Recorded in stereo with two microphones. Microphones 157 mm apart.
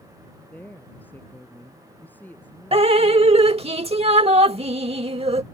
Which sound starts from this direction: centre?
A woman speaking, at 0.5 s.